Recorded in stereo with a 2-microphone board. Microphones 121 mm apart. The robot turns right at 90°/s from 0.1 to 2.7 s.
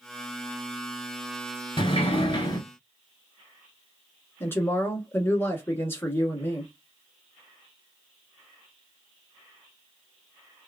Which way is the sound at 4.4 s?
20° left (ahead or behind).